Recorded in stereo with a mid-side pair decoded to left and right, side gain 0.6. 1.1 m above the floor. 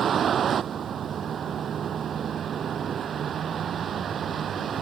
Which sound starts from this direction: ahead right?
A vehicle, at 0.0 s.